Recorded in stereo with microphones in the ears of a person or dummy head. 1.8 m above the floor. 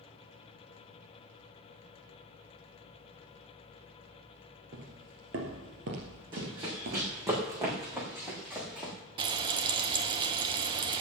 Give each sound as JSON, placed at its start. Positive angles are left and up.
{"t": 4.7, "sound": "footsteps", "side_deg": -45, "distance_m": 2.5}
{"t": 6.3, "sound": "running footsteps", "side_deg": -25, "distance_m": 6.0}
{"t": 9.2, "sound": "frying", "side_deg": -25, "distance_m": 1.1}